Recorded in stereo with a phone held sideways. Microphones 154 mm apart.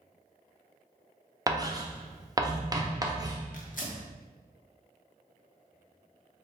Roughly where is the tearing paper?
Left.